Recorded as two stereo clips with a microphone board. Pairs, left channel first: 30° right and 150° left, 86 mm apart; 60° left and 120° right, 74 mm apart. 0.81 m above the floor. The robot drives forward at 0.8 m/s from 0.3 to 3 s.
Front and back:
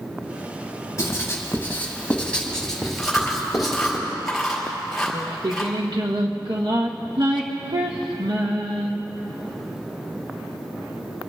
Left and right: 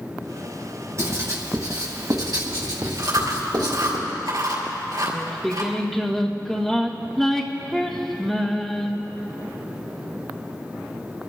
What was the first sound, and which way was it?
Writing, 80° right.